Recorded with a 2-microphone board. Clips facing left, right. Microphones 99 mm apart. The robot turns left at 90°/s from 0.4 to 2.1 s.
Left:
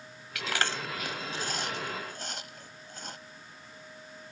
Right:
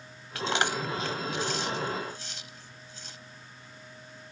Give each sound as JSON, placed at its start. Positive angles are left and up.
{"t": 0.3, "sound": "chewing", "side_deg": -35}